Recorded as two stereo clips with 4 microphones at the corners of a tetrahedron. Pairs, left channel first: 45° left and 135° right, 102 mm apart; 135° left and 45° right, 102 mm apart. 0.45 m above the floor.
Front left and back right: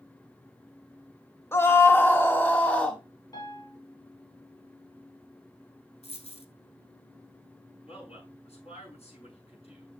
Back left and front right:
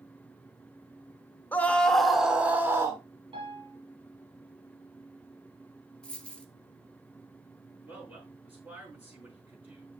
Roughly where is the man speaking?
Ahead left.